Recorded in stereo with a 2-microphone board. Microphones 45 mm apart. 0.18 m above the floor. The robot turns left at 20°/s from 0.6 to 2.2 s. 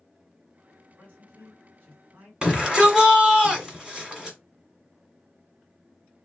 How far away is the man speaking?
About 2 m.